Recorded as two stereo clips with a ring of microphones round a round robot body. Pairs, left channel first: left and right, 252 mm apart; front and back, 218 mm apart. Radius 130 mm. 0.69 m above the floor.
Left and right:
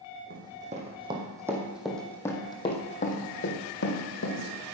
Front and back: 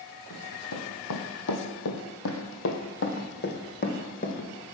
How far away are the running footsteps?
About 2 m.